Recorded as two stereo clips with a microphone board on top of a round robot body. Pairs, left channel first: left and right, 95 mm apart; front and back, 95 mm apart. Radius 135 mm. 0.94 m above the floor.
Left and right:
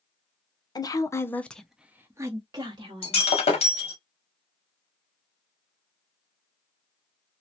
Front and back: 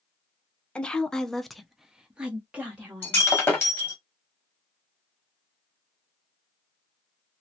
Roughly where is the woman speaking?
Left.